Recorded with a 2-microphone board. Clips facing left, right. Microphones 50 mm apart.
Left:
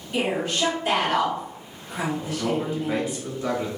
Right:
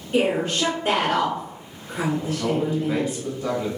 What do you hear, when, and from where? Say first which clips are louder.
0.1 s a woman speaking: right 4 dB; 40° right (ahead or behind), 1.4 m
2.2 s a man speaking: right 2 dB; 5° left (ahead or behind), 1.2 m